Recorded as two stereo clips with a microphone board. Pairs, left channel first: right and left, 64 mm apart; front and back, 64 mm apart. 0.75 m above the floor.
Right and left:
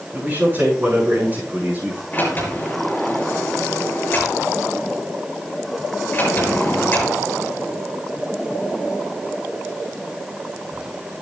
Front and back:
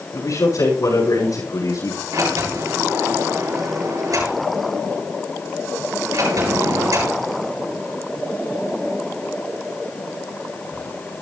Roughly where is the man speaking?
Ahead left.